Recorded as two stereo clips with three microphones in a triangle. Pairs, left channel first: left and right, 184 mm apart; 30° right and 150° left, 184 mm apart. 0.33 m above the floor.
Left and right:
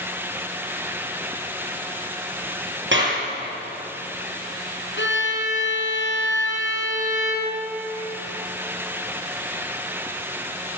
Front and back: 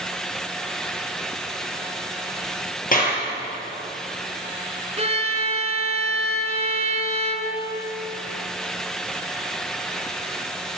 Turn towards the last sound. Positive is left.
turn(degrees=95)